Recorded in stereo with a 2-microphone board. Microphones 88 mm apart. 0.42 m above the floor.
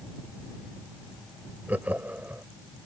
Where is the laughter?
20° right (ahead or behind).